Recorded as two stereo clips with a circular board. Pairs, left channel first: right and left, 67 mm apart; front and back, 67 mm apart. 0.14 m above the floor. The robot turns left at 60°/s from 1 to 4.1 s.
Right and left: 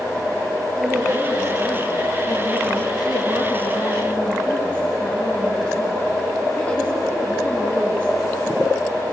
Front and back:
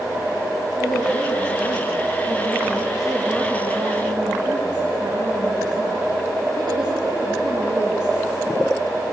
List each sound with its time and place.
0.8 s a woman speaking: 25° left, 5.5 m; by 8.2 s 165° right, 5.5 m